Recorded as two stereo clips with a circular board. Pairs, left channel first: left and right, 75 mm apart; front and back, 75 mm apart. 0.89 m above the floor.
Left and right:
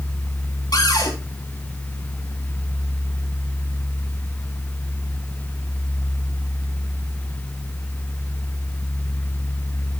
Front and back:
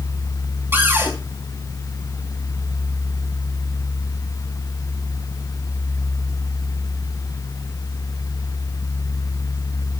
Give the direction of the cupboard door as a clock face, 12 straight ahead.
8 o'clock.